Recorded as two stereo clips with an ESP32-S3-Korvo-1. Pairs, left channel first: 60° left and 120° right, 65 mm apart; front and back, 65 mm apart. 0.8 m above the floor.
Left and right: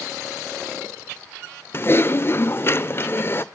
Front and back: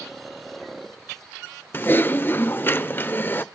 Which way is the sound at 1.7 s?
35° left.